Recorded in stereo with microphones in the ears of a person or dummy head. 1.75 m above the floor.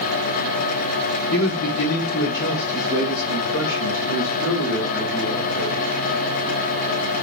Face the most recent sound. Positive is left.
turn(degrees=85)